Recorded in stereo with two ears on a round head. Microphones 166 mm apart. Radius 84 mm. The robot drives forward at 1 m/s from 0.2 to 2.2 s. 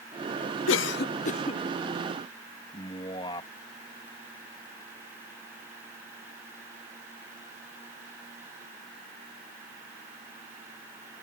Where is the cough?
75° left (ahead or behind); by 1.6 s 30° left (ahead or behind).